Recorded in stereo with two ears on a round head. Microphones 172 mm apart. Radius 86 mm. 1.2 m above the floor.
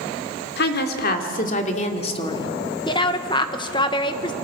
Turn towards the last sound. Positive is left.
turn(degrees=25)  # may be behind; listen again after turning